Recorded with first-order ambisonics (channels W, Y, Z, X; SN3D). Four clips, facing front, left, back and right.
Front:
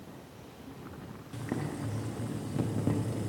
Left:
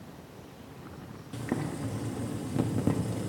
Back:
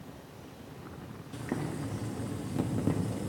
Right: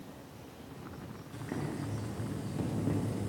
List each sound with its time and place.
1.3 s boiling: 95° left, 0.6 m